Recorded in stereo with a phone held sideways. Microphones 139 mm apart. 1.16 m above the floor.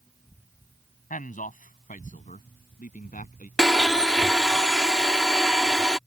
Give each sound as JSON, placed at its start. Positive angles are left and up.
{"t": 1.1, "sound": "a man speaking", "side_deg": 70}
{"t": 3.6, "sound": "a blender", "side_deg": -5}